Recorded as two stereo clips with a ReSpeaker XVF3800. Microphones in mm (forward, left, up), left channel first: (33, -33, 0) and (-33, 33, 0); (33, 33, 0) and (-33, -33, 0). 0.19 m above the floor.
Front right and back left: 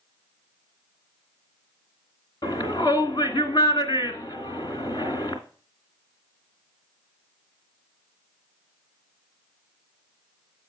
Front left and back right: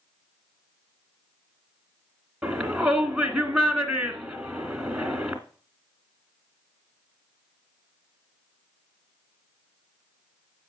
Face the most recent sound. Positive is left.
turn(degrees=-55)